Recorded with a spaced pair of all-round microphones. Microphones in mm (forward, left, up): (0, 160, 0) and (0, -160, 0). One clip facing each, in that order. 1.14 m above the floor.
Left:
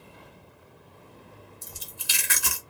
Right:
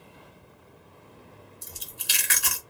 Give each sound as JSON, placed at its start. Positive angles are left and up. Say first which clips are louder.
{"t": 1.6, "sound": "chewing", "louder": "even", "side_deg": 60, "distance_m": 1.5}